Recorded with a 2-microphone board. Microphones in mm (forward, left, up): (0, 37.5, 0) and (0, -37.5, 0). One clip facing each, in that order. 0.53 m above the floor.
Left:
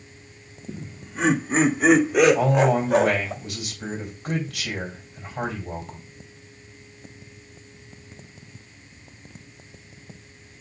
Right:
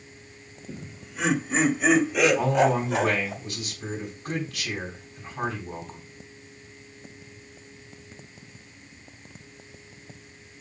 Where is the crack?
No crack in this recording.